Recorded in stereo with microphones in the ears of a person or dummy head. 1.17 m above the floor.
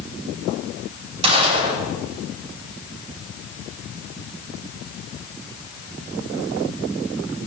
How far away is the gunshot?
About 6.5 m.